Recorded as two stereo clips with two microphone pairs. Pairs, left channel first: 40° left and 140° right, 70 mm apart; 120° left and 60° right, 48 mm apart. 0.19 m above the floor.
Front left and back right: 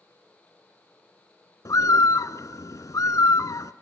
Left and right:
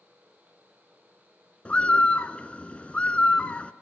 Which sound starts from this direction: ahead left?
A bird, at 1.6 s.